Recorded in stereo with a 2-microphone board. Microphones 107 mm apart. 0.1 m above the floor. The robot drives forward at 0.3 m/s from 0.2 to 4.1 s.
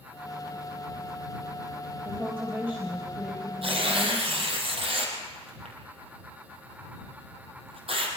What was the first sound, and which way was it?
A woman speaking, 15° right (ahead or behind).